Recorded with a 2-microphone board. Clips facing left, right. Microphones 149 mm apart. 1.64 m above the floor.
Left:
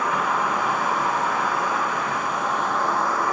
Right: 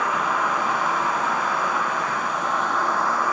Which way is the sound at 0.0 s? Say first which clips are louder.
Even; 65° left (ahead or behind).